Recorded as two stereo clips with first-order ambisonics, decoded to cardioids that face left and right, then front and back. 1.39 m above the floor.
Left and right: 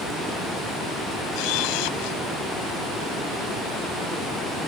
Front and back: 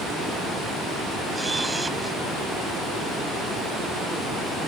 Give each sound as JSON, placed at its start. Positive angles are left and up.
{"t": 1.3, "sound": "a camera shutter", "azimuth_deg": 95}